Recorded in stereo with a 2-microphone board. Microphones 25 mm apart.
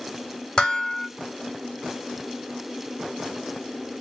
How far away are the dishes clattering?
About 1.2 m.